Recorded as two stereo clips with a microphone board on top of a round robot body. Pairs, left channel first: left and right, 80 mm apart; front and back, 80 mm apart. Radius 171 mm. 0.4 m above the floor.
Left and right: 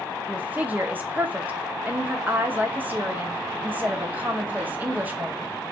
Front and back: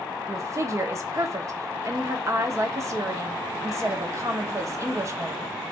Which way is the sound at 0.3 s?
150° right.